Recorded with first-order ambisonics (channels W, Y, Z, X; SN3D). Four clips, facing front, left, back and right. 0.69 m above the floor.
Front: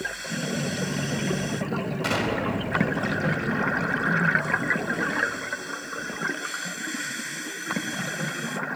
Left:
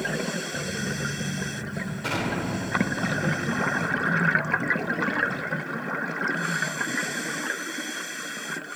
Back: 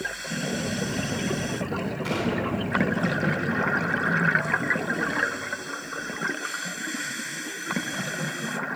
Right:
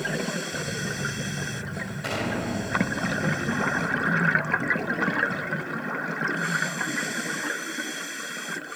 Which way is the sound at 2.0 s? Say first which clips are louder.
Even, front 2 dB; 15° right.